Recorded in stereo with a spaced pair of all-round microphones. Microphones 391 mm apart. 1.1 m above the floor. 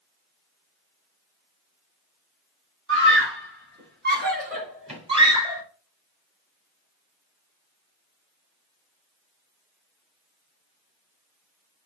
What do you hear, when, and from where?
2.9 s a scream: 30° right (ahead or behind), 4.5 m; by 5.6 s 5° right (ahead or behind), 3 m